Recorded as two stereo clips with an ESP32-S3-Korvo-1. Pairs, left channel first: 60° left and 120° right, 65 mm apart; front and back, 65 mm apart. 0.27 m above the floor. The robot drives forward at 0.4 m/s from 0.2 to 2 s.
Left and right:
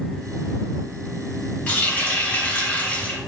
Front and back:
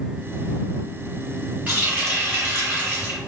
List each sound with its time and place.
1.7 s a running tap: 120° left, 1.4 m; by 3.2 s 125° left, 1.5 m